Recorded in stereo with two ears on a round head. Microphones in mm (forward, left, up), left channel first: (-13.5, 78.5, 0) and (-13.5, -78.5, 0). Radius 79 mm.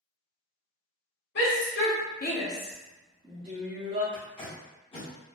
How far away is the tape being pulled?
About 1.4 m.